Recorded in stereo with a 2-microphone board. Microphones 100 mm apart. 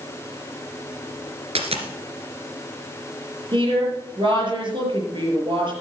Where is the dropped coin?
80° right, 1.9 m.